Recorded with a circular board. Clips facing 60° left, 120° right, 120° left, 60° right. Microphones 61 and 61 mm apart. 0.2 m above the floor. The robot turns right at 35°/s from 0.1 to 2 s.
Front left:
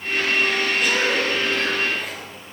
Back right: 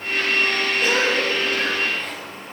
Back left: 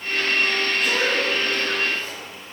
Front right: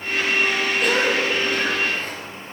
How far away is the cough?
About 4 m.